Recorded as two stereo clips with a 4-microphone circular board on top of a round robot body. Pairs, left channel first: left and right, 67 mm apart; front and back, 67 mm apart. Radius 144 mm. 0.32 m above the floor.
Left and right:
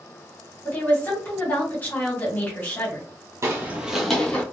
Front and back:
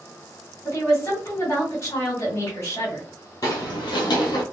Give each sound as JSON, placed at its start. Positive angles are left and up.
{"t": 0.7, "sound": "a woman speaking", "azimuth_deg": 35, "distance_m": 1.8}
{"t": 3.4, "sound": "footsteps", "azimuth_deg": -40, "distance_m": 0.8}